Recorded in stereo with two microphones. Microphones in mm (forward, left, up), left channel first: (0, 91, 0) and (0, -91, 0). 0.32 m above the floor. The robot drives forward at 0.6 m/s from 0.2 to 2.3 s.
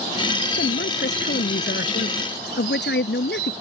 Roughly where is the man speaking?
Left.